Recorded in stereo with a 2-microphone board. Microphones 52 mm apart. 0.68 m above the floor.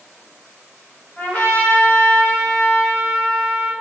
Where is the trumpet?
30° left (ahead or behind), 1.5 m.